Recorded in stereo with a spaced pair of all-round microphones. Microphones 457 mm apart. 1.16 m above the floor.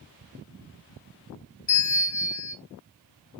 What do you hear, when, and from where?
1.7 s a bell: 65° left (ahead or behind), 2 m